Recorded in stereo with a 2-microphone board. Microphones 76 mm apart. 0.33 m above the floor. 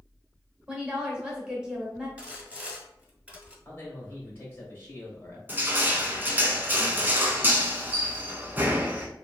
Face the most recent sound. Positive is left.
turn(degrees=-25)  # may be behind; listen again after turning